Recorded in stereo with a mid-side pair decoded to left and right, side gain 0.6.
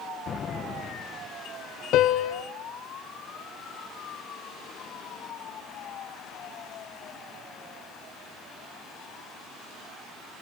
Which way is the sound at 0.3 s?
40° left.